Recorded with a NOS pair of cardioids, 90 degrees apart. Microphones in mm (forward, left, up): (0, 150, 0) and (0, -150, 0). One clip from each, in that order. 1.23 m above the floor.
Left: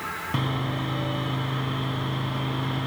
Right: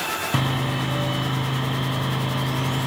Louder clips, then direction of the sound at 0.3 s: Right 4 dB; 30° right.